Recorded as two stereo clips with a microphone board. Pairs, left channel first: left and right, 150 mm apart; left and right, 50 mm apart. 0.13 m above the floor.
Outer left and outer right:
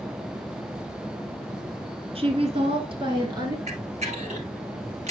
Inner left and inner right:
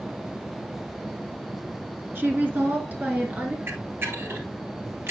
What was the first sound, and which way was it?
A woman speaking, 40° right (ahead or behind).